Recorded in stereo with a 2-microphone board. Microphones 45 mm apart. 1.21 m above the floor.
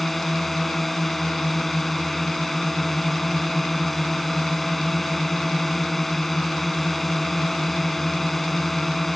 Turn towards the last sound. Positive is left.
turn(degrees=5)  # may be behind; listen again after turning